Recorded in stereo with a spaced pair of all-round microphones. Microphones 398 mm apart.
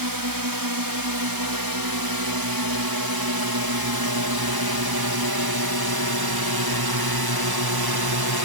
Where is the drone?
55° right (ahead or behind); by 8.4 s 65° right (ahead or behind).